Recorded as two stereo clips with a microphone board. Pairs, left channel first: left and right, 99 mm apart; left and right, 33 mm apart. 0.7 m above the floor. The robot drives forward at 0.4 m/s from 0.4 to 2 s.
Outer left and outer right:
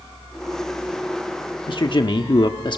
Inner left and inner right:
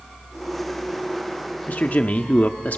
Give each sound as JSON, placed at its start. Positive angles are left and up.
{"t": 1.7, "sound": "a man speaking", "side_deg": 60, "distance_m": 1.0}